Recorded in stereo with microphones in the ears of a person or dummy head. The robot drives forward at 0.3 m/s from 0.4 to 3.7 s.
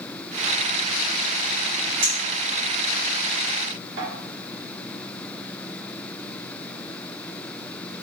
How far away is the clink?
About 1.3 m.